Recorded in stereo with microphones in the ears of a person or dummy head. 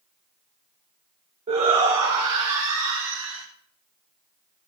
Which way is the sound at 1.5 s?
30° right (ahead or behind).